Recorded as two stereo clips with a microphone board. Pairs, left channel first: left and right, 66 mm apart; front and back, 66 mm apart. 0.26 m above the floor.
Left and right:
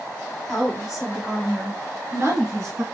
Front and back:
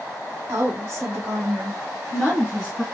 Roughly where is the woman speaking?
Behind.